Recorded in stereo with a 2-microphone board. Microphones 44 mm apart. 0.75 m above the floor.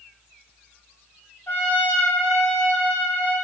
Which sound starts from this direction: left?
A trumpet, at 1.5 s.